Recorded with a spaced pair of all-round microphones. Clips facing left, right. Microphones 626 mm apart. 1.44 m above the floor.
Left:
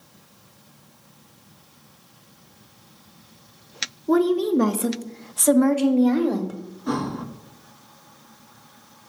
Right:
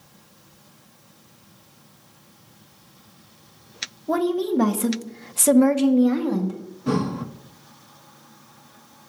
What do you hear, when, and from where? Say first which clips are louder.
4.1 s a woman speaking: left 3 dB; 10° right (ahead or behind), 1.1 m; by 6.6 s 30° right (ahead or behind), 1.1 m
6.9 s breathing: right 3 dB; 55° right (ahead or behind), 0.7 m